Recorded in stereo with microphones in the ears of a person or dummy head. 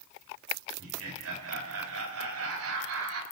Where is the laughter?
85° right, 4 m.